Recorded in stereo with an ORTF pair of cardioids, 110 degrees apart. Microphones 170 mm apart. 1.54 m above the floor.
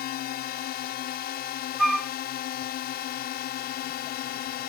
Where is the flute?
Straight ahead.